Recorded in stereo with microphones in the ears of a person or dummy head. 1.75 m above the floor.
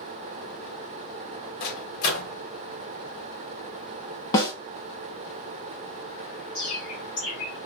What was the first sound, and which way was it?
A microwave, 60° left (ahead or behind).